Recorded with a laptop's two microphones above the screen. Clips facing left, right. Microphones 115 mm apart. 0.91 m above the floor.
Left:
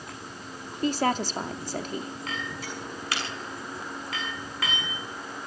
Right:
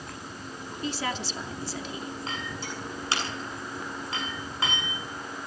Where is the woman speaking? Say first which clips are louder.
Left 7 dB; 45° left (ahead or behind), 2.5 m.